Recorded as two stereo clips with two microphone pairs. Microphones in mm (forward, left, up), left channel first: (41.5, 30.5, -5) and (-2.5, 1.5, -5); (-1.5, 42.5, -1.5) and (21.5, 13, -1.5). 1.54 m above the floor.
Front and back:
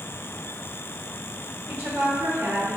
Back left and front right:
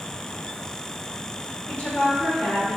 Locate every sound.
1.7 s a woman speaking: 170° left, 1.0 m